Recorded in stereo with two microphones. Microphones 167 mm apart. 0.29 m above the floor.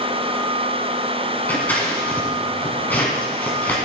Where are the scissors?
10° left (ahead or behind), 1.8 m.